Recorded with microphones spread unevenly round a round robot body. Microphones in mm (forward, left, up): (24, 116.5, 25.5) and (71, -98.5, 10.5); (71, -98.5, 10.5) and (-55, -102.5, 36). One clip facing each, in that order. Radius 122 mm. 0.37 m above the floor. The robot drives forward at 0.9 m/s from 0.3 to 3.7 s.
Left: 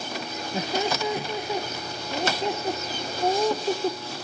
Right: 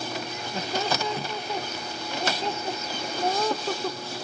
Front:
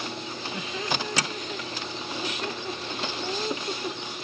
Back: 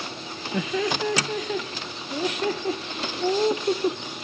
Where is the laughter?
Straight behind.